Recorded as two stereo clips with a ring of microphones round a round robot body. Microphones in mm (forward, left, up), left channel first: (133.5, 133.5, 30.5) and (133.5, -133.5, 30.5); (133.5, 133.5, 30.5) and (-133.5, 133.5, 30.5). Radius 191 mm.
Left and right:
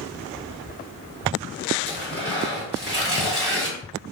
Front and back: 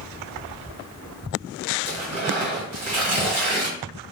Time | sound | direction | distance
1.9 | tearing paper | 155° right | 2.0 m